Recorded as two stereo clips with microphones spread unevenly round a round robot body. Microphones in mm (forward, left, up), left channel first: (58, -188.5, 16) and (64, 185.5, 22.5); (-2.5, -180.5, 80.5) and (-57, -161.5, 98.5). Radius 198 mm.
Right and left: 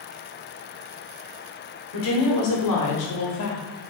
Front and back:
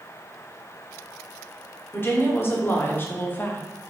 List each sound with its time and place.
1.9 s a woman speaking: 65° right, 2.5 m; by 3.6 s 50° right, 1.7 m